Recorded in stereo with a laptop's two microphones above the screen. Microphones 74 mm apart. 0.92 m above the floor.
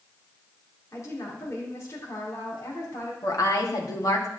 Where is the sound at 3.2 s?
55° left (ahead or behind), 1.8 m.